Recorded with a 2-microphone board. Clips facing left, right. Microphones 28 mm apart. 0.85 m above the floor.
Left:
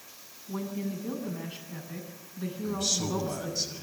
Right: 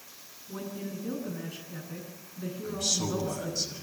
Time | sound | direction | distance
0.5 | a woman speaking | 40° left (ahead or behind) | 8 m
2.6 | a man speaking | 5° left (ahead or behind) | 6 m